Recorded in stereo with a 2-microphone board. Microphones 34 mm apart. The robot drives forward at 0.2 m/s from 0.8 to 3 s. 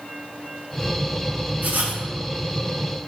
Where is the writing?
50° right (ahead or behind), 0.5 m; by 2.0 s 60° right (ahead or behind), 0.5 m.